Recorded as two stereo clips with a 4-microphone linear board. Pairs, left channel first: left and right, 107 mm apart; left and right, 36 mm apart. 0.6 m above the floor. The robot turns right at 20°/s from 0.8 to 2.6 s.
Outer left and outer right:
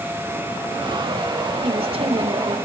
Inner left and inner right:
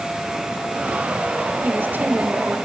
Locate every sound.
1.6 s a woman speaking: 65° right (ahead or behind), 2 m; by 2.6 s 55° right (ahead or behind), 2 m